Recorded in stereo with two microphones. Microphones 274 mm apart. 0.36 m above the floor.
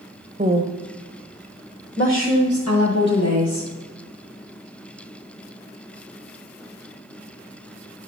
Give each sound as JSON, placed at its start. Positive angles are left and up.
{"t": 0.4, "sound": "a woman speaking", "side_deg": -30, "distance_m": 0.9}